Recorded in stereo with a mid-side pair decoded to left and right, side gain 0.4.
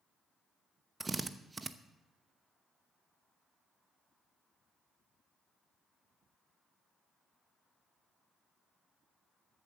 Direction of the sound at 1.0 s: 30° right.